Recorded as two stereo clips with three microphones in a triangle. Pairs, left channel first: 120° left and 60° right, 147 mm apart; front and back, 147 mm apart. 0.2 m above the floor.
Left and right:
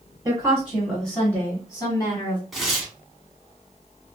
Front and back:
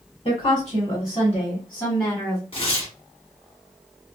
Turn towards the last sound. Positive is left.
turn(degrees=30)